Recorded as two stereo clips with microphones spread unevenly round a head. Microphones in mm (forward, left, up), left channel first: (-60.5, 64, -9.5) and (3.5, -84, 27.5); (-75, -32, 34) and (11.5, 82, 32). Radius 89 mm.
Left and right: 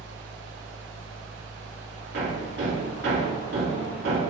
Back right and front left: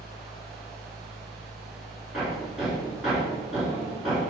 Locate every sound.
0.0 s a fan: 40° right, 1.3 m
2.1 s hammering: 35° right, 3 m